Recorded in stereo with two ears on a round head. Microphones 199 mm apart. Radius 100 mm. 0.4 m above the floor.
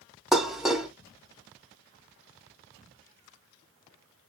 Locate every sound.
0.3 s dishes clattering: centre (ahead or behind), 0.6 m